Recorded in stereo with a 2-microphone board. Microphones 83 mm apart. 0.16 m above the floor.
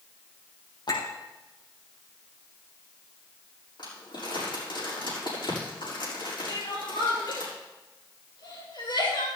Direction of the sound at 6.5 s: 75° left (ahead or behind).